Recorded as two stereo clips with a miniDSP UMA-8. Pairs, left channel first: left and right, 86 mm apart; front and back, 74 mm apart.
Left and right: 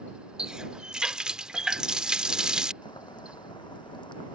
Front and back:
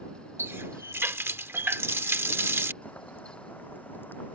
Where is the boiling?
65° left.